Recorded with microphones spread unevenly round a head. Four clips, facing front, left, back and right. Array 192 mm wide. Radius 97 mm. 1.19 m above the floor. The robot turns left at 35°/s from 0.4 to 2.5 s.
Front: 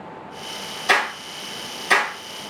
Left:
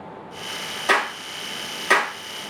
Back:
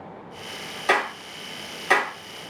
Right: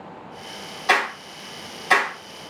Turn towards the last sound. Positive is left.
turn(degrees=75)